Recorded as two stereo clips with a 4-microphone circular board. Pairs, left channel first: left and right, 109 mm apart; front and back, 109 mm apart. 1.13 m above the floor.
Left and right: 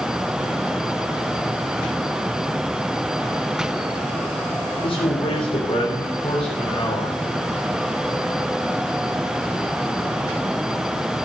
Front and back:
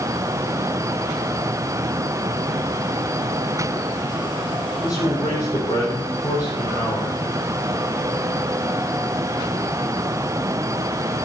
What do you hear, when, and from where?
4.8 s a man speaking: 55° left, 3.5 m